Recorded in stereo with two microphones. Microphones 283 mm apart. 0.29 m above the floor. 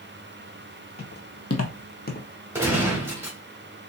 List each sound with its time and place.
1.0 s footsteps: 35° left (ahead or behind), 1.4 m; by 2.3 s 25° left (ahead or behind), 1.0 m
2.5 s a gunshot: 10° right (ahead or behind), 1.2 m